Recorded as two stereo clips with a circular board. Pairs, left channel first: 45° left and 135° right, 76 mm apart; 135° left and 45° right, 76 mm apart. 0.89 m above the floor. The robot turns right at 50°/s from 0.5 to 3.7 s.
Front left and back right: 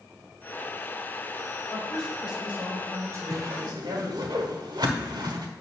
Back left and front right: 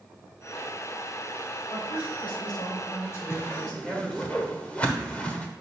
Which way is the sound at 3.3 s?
175° right.